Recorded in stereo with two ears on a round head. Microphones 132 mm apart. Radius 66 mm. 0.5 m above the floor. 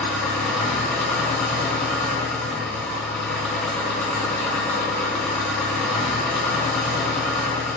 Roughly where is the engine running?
Centre.